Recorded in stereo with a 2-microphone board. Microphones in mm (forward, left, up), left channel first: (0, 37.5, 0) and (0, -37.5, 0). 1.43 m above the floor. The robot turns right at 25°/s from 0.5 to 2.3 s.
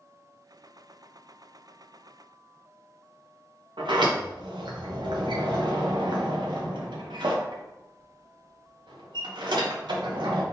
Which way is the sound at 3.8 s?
80° right.